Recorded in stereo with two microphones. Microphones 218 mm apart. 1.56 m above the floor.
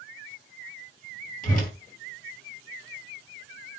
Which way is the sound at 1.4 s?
40° left (ahead or behind).